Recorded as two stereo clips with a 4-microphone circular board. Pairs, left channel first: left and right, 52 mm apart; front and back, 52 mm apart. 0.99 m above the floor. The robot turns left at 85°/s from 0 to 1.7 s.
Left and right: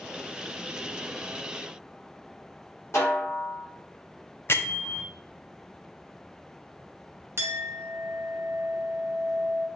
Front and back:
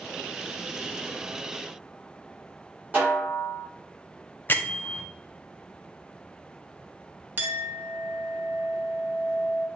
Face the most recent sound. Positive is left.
turn(degrees=-125)